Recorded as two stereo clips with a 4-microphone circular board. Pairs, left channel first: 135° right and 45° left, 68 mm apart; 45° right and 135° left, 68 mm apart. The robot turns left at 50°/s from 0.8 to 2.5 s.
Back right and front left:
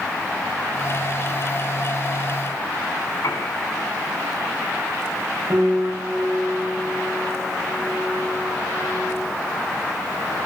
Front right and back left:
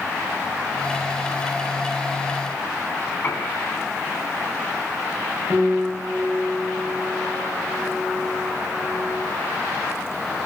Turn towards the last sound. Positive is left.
turn(degrees=75)